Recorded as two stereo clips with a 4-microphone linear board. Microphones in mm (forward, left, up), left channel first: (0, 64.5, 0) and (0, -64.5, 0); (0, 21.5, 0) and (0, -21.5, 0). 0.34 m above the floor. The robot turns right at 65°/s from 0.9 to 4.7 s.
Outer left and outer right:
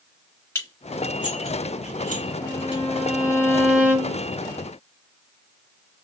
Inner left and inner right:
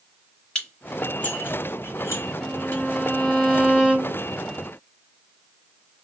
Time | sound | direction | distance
0.6 | dishes clattering | 20° left (ahead or behind) | 2 m
2.4 | a violin | 100° left | 2.5 m